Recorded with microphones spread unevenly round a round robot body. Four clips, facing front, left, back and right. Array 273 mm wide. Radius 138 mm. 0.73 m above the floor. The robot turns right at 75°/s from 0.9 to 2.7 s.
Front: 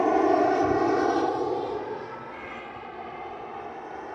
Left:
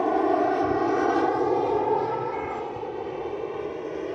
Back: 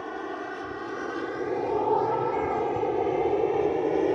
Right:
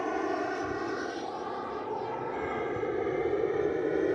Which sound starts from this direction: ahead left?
An aircraft, at 0.0 s.